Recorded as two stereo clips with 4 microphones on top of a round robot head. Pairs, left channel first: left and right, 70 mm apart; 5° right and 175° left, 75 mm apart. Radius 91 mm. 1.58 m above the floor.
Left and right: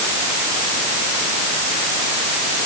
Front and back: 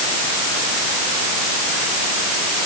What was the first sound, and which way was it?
Only background noise.